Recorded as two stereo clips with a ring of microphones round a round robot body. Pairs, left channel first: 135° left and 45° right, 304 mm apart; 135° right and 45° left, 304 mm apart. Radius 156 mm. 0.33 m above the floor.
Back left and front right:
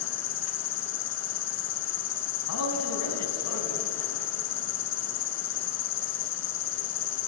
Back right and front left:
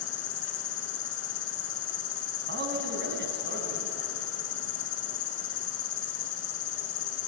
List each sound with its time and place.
0.0 s an insect: straight behind, 1.2 m
2.5 s a man speaking: 100° left, 3.5 m